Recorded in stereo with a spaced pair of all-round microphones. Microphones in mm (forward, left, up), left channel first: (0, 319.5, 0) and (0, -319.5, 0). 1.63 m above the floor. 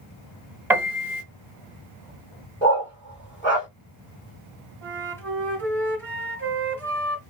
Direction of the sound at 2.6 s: 20° left (ahead or behind).